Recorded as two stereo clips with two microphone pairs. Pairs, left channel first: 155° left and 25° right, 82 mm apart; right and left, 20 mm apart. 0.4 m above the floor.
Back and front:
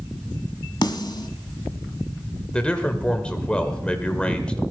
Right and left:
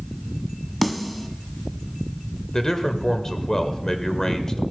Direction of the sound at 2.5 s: 135° right.